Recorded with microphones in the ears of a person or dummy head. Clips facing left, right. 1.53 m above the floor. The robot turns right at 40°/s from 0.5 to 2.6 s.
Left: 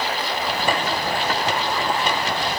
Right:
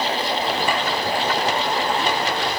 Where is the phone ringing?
No phone ringing in this recording.